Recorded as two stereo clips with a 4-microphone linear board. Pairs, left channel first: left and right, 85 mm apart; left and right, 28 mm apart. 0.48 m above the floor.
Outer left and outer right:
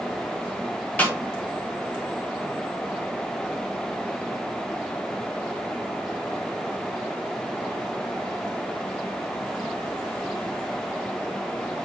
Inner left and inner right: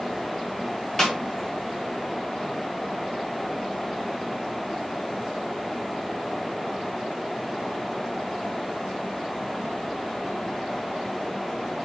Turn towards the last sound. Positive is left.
turn(degrees=15)  # may be behind; listen again after turning